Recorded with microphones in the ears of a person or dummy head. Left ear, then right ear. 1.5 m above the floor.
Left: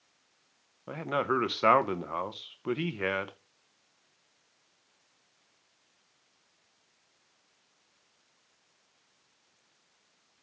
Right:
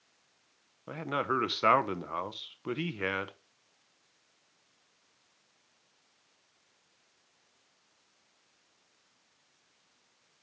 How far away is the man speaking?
About 0.7 m.